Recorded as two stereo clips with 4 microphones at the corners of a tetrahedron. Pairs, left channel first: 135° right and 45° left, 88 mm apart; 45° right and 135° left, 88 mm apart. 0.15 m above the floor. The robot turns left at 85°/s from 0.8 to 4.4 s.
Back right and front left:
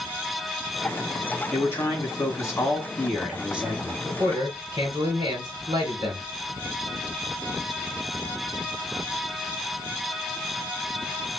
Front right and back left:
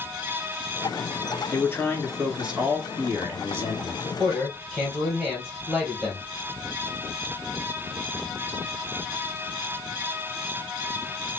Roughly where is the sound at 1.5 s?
Right.